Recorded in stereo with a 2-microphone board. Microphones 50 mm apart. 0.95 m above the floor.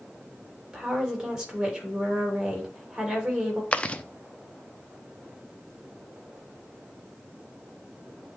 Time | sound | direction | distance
0.7 | a woman speaking | 15° right (ahead or behind) | 3 m
3.7 | chewing | 25° left (ahead or behind) | 0.6 m